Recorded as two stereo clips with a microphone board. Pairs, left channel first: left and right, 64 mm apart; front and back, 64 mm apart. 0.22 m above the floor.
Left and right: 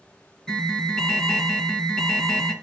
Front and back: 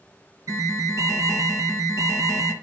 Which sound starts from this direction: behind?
An alarm, at 0.5 s.